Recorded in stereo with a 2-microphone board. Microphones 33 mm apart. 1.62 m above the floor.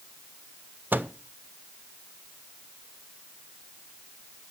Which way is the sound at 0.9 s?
75° right (ahead or behind).